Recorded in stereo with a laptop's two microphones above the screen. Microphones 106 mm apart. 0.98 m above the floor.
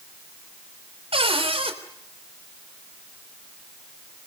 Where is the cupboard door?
55° right (ahead or behind), 3.5 m.